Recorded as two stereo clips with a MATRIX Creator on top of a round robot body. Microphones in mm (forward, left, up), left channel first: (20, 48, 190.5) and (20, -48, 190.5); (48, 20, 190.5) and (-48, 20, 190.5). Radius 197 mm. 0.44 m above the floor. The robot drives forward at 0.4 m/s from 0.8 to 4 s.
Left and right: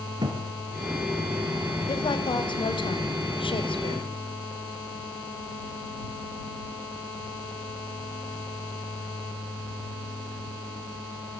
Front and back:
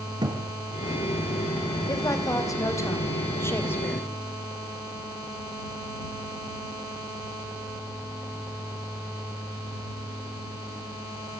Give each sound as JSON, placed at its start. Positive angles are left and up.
{"t": 0.2, "sound": "a thud", "azimuth_deg": -135, "distance_m": 3.5}
{"t": 1.9, "sound": "a woman speaking", "azimuth_deg": 50, "distance_m": 3.0}